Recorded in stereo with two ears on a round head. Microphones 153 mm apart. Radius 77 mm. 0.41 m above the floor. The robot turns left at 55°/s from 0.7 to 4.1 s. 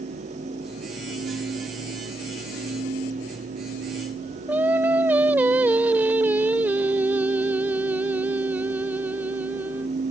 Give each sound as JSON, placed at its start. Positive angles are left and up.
{"t": 4.5, "sound": "singing", "side_deg": -10}